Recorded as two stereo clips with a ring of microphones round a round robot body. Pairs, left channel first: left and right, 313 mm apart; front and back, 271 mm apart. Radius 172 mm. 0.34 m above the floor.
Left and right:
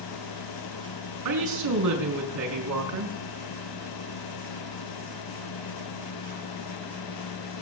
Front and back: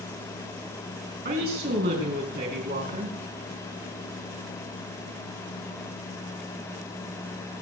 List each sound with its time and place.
1.2 s a woman speaking: 120° right, 4.5 m